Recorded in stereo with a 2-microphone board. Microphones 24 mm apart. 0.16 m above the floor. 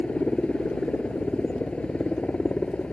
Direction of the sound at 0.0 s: 50° left (ahead or behind).